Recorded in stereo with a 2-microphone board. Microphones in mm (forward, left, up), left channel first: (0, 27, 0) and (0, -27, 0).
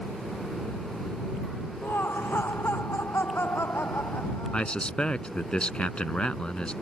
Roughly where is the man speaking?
Centre.